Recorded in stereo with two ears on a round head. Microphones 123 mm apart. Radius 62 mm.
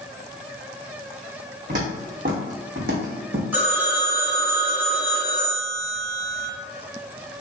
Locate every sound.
1.7 s footsteps: 60° right (ahead or behind), 1.6 m; by 3.4 s 75° right (ahead or behind), 1.4 m
3.5 s a phone ringing: 15° right (ahead or behind), 1.1 m